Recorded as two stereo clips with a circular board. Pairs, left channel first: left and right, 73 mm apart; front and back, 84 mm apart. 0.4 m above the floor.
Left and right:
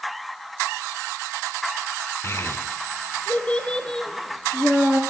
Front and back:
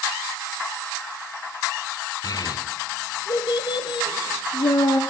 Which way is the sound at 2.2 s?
40° left.